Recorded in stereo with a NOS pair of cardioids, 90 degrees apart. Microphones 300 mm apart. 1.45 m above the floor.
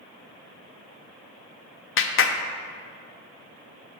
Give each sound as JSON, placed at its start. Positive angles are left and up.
{"t": 2.0, "sound": "a clap", "azimuth_deg": 45, "distance_m": 0.5}